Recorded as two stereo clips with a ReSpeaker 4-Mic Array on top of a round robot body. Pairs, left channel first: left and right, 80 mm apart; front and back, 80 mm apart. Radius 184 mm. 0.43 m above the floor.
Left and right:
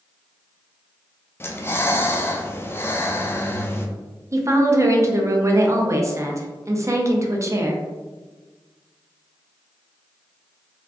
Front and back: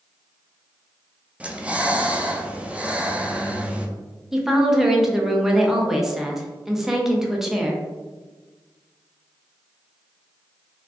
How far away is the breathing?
About 0.7 m.